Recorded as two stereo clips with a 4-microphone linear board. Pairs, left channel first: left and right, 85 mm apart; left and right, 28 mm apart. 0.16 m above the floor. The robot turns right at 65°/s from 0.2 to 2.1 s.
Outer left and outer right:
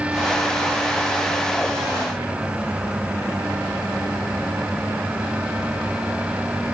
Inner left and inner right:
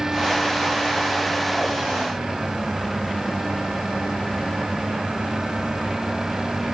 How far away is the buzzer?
I don't hear a buzzer.